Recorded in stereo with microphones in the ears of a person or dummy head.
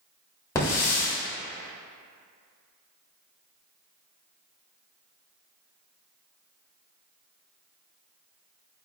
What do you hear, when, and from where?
0.6 s a hiss: 15° left (ahead or behind), 1.3 m